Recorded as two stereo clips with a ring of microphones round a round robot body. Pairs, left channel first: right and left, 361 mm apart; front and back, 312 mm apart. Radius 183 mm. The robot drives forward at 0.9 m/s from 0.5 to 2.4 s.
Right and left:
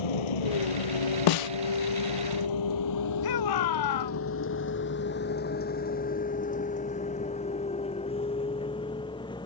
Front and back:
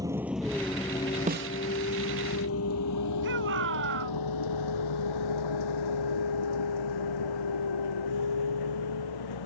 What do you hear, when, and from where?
0.0 s a vehicle: 100° right; by 9.5 s 10° right
1.3 s a snare drum: 110° right; by 1.5 s 130° right
3.2 s a shout: 120° right